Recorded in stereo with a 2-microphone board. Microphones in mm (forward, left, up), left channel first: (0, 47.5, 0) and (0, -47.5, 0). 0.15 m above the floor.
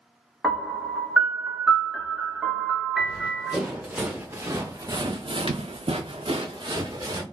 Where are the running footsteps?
5° right (ahead or behind), 1.8 m; by 7.2 s 45° right (ahead or behind), 1.2 m.